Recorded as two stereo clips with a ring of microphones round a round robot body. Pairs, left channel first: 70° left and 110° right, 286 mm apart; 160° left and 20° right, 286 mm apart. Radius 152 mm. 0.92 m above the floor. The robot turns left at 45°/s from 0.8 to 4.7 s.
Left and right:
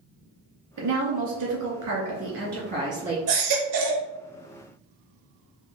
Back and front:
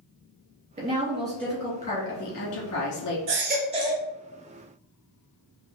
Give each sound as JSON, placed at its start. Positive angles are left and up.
{"t": 0.8, "sound": "a woman speaking", "azimuth_deg": -90, "distance_m": 2.5}
{"t": 3.3, "sound": "a baby crying", "azimuth_deg": -70, "distance_m": 1.2}